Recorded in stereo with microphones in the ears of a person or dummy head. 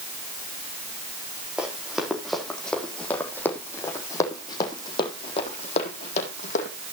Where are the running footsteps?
5° right (ahead or behind), 3.5 m; by 6.7 s 45° left (ahead or behind), 4 m.